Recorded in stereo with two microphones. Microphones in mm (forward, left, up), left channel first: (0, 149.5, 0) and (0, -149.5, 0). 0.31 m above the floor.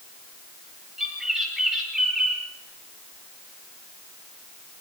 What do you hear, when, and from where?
1.0 s a bird: centre (ahead or behind), 7.5 m